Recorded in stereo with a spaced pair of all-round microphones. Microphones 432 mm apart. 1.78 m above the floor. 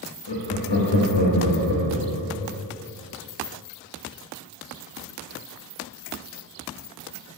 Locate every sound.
0.3 s laughter: 75° left (ahead or behind), 0.5 m